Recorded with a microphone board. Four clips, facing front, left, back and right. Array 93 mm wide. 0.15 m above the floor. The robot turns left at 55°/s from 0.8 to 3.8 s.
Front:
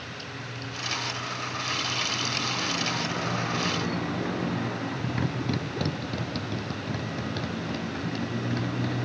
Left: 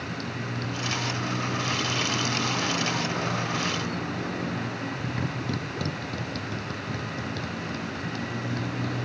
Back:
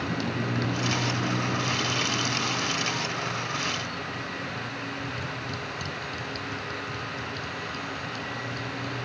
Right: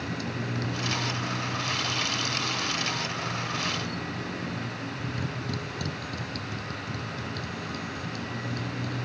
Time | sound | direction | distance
0.0 | a motorcycle | 175° right | ?